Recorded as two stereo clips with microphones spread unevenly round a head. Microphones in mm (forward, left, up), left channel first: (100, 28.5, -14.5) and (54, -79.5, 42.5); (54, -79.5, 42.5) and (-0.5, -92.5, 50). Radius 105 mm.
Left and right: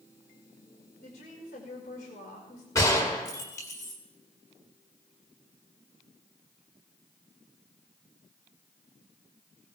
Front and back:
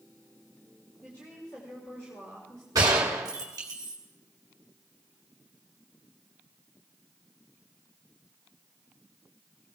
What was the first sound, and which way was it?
A woman speaking, 85° left.